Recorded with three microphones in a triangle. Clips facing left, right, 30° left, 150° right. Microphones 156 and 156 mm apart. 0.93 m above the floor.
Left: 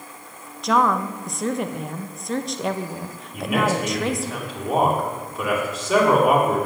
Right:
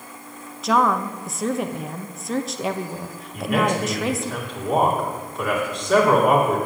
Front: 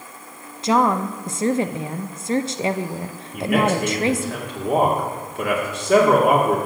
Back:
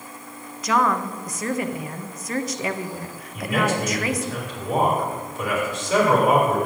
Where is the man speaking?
5° left, 2.5 m.